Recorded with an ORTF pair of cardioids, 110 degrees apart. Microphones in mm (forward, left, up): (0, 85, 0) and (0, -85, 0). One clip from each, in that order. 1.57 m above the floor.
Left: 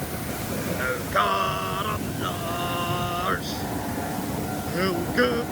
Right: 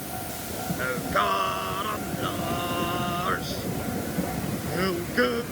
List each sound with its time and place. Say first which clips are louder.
0.8 s singing: left 1 dB; 5° left